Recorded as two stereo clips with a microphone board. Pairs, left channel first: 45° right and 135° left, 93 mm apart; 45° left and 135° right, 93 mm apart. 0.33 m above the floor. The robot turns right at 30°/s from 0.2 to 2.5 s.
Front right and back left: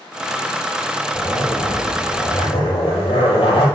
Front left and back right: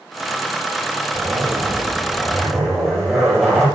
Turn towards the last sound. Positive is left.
turn(degrees=-40)